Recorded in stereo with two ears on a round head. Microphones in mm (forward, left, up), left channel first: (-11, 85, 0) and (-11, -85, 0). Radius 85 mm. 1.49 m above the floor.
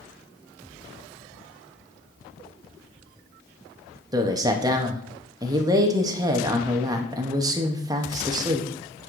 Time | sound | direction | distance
4.1 | a man speaking | 20° right (ahead or behind) | 0.8 m